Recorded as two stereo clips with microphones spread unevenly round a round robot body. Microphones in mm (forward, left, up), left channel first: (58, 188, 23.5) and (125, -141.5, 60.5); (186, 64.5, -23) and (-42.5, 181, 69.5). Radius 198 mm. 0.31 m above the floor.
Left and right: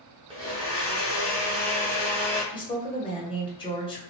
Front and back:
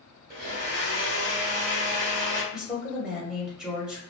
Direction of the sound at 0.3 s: 155° right.